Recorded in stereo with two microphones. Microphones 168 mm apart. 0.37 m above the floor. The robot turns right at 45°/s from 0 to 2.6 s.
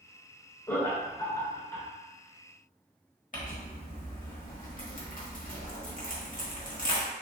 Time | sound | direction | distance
0.7 | laughter | 15° left (ahead or behind) | 0.8 m
3.3 | crumpling | 50° left (ahead or behind) | 1.0 m